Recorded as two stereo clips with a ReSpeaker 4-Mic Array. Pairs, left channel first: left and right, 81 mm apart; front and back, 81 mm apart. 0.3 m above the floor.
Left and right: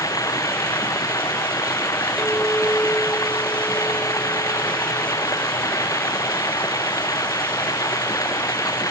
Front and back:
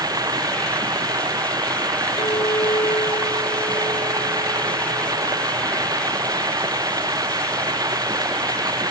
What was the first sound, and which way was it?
Running water, 135° left.